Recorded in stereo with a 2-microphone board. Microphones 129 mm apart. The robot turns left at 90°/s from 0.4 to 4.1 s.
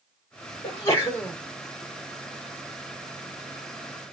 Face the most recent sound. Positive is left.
turn(degrees=110)